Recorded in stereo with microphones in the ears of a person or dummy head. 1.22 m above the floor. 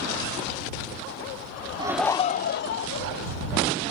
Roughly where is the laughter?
Right.